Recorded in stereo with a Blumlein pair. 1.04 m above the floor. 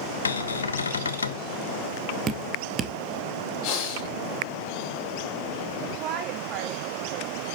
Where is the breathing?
35° left, 2.5 m.